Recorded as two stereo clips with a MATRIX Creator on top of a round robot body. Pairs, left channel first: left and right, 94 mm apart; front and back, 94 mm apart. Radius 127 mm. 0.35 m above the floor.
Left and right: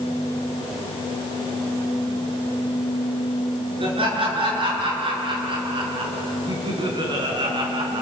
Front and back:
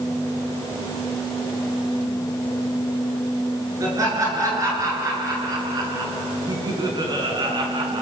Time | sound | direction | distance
3.8 | laughter | 125° right | 7 m